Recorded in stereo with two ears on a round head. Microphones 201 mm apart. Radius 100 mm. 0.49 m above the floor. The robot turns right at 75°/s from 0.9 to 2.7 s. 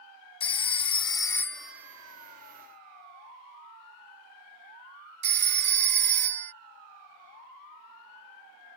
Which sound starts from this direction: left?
A phone ringing, at 0.4 s.